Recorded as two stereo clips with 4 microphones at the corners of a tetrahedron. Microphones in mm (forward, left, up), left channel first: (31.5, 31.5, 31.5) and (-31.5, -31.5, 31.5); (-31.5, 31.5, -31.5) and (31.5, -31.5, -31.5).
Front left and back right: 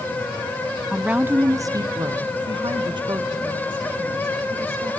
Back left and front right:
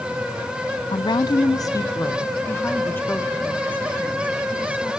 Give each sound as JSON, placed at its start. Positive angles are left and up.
{"t": 0.9, "sound": "a woman speaking", "azimuth_deg": 140, "distance_m": 0.6}